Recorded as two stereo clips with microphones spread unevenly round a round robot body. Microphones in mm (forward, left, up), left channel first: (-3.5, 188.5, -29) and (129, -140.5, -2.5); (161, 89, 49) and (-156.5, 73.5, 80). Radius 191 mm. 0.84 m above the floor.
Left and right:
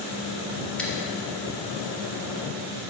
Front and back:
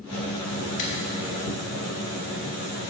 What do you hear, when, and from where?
0.8 s scissors: 25° left, 2 m